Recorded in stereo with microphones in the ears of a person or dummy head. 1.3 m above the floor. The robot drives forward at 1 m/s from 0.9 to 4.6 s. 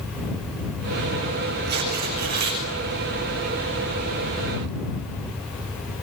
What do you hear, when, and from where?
1.7 s tearing paper: 50° right (ahead or behind), 5.5 m; by 2.6 s 45° right (ahead or behind), 6.5 m